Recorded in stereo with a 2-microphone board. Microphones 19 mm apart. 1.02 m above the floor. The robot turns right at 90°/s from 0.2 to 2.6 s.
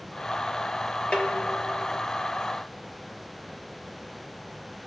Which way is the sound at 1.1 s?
75° left.